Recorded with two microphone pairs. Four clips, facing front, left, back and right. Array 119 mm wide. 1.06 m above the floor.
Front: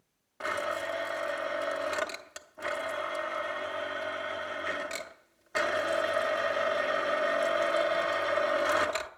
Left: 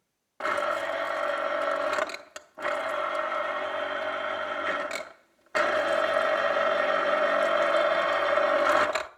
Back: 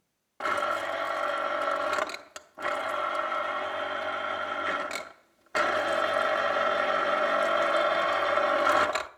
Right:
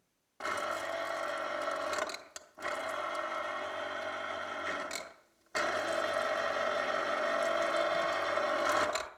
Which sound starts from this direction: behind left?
A blender, at 0.4 s.